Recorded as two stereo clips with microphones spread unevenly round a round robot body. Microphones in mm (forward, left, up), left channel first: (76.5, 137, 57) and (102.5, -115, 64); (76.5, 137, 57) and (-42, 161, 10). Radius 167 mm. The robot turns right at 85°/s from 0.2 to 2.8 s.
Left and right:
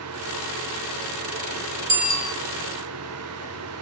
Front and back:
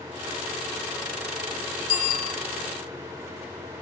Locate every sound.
1.9 s a bicycle bell: 45° right, 3 m; by 2.4 s 5° right, 3 m